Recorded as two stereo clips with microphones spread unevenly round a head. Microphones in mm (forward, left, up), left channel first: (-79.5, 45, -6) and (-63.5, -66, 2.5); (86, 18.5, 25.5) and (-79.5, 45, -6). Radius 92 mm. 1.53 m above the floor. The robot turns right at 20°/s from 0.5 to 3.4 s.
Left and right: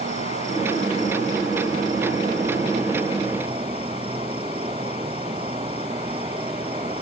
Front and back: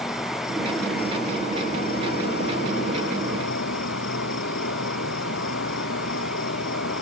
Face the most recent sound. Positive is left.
turn(degrees=-25)